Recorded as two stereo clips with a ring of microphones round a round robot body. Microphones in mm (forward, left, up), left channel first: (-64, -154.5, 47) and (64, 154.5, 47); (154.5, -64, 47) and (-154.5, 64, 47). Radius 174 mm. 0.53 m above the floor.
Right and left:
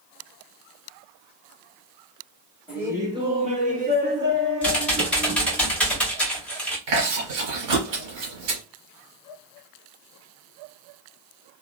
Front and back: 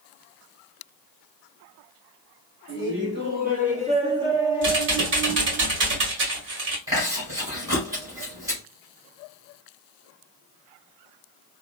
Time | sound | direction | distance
2.7 | laughter | 150° left | 1.5 m
4.6 | typing on a keyboard | 165° left | 1.4 m
6.9 | chewing | 75° left | 1.9 m